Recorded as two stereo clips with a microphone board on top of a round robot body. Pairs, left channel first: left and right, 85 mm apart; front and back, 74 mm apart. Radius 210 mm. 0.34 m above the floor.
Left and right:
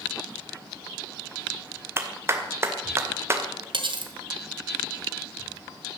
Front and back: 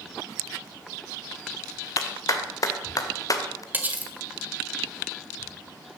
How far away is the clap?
About 2.5 m.